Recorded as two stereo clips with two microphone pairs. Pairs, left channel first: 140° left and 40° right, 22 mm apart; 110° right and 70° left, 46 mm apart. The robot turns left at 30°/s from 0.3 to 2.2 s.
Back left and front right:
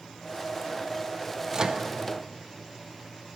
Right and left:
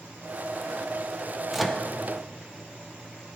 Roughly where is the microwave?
Ahead.